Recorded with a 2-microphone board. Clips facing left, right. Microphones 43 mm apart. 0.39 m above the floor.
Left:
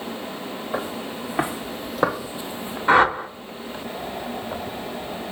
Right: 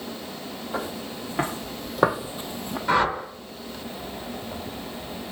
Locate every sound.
0.7 s footsteps: 25° left (ahead or behind), 2.5 m; by 2.8 s 65° right (ahead or behind), 0.9 m
2.9 s a whoosh: 30° left (ahead or behind), 0.7 m